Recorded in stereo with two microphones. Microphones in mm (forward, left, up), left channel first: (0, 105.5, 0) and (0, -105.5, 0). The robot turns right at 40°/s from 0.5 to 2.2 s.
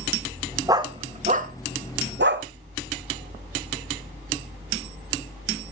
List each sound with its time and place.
0.7 s a dog barking: 15° right (ahead or behind), 1.4 m; by 2.5 s 60° right (ahead or behind), 1.4 m